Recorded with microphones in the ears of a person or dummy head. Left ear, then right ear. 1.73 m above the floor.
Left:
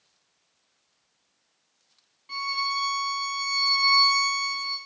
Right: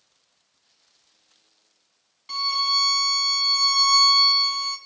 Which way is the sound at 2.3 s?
30° right (ahead or behind).